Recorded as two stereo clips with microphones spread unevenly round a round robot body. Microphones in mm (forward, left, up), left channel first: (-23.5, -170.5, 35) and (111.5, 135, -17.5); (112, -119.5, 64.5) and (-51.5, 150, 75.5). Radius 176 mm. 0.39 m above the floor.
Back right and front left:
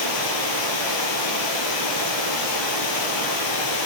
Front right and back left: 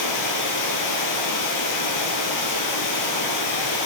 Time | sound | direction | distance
0.0 | running water | 95° right | 1.6 m